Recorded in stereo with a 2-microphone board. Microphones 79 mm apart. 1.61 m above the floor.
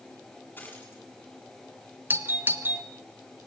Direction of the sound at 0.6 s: 25° left (ahead or behind).